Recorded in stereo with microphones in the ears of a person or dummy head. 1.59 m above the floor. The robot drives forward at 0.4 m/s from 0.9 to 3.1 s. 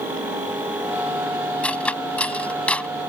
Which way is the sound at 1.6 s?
10° left (ahead or behind).